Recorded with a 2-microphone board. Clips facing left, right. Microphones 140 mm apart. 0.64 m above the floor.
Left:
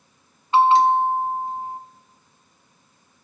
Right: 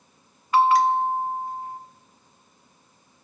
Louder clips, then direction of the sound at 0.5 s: Left 3 dB; 25° left (ahead or behind).